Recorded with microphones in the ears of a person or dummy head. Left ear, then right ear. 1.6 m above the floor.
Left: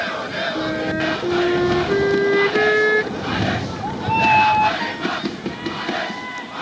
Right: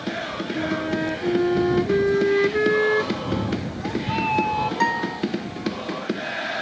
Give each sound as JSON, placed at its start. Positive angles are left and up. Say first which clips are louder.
{"t": 0.6, "sound": "a flute", "louder": "left 3 dB", "side_deg": 15}
{"t": 3.1, "sound": "a cat meowing", "louder": "left 5 dB", "side_deg": 45}
{"t": 4.8, "sound": "a guitar", "louder": "right 1 dB", "side_deg": -45}